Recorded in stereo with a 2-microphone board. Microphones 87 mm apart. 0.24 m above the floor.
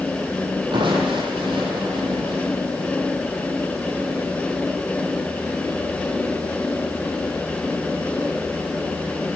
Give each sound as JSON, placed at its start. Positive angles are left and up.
{"t": 0.7, "sound": "crushing", "side_deg": -70, "distance_m": 8.5}